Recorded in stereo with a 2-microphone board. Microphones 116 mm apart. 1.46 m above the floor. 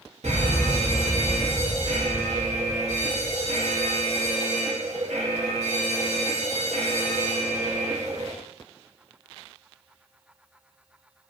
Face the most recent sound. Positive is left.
turn(degrees=-75)  # may be behind; listen again after turning